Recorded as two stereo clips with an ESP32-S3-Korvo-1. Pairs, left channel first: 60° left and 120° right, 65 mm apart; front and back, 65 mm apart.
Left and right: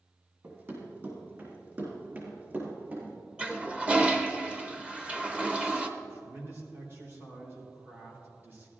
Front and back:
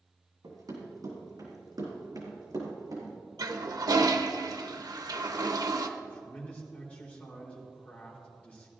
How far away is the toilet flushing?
About 0.8 m.